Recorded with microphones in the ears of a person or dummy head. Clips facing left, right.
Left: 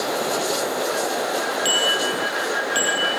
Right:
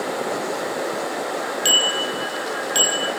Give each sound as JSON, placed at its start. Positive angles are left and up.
{"t": 1.6, "sound": "a bicycle bell", "side_deg": -10, "distance_m": 5.0}